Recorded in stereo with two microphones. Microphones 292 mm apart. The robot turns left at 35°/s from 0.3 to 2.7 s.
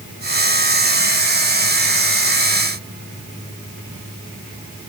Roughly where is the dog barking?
No dog barking in this recording.